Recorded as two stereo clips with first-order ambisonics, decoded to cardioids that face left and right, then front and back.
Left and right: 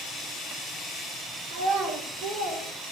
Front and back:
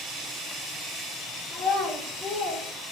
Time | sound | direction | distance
1.5 | a child speaking | 75° right | 3 m